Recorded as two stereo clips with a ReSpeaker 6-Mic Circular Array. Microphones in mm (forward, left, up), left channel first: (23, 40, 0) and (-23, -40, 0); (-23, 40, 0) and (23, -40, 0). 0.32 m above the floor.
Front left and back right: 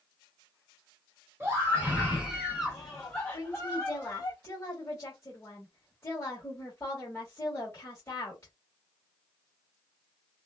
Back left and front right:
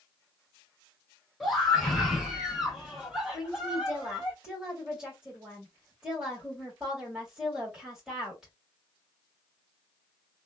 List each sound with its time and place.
1.4 s a scream: 150° right, 1.3 m; by 4.3 s 20° left, 1.5 m
3.3 s a woman speaking: 20° left, 1.5 m